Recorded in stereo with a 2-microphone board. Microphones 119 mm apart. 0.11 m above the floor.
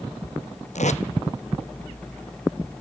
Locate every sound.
0.8 s tape being pulled: 75° left (ahead or behind), 0.8 m